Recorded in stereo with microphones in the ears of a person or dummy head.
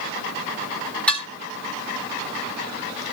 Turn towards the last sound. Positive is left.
turn(degrees=10)  # may be behind; listen again after turning